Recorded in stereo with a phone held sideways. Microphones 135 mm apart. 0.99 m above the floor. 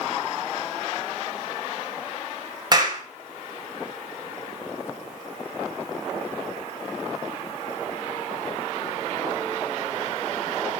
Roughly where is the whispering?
I don't hear whispering.